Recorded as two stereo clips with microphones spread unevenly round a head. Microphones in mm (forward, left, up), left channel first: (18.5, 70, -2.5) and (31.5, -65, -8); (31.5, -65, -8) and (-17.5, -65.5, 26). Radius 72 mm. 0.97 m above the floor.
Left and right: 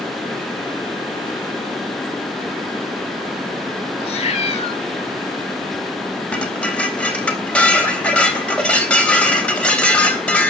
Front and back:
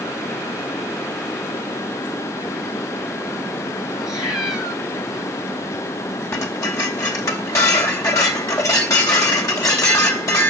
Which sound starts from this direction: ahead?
Dishes clattering, at 6.3 s.